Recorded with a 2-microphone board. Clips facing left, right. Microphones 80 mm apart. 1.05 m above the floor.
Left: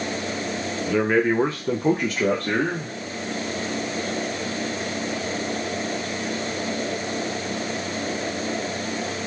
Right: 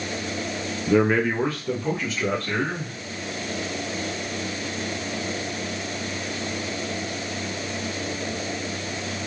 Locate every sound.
0.9 s a man speaking: 15° right (ahead or behind), 0.6 m; by 2.9 s 65° left (ahead or behind), 1.3 m